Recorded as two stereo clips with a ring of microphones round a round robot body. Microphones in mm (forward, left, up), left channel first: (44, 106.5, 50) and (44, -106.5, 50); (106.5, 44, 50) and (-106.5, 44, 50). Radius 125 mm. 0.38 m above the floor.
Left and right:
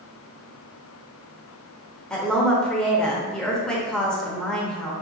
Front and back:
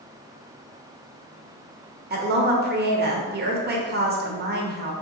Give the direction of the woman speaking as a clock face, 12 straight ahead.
6 o'clock.